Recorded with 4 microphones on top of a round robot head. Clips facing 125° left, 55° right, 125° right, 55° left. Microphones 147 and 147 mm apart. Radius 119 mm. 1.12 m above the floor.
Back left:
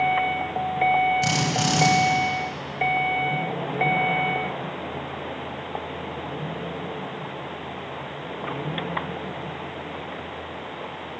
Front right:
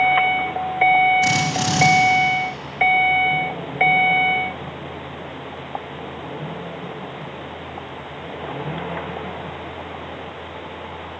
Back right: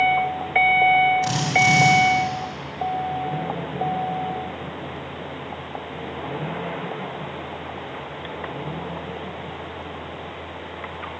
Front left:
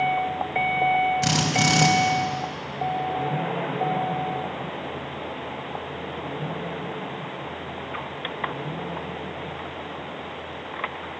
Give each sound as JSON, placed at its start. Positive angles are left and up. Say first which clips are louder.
{"t": 1.2, "sound": "a drill", "louder": "front right 3 dB, back right 2 dB", "azimuth_deg": 45, "distance_m": 5.0}